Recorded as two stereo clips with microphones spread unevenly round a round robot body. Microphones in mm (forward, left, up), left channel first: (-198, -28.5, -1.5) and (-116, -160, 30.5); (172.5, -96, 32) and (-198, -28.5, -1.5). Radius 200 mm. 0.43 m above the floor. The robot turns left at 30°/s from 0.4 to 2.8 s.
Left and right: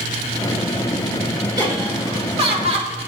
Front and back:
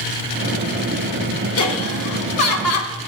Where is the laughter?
10° left, 1.2 m; by 2.9 s 25° right, 1.2 m.